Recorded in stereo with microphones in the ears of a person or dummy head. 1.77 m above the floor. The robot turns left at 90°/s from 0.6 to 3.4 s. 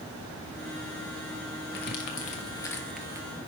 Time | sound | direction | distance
1.7 | crumpling | 50° left (ahead or behind) | 1.5 m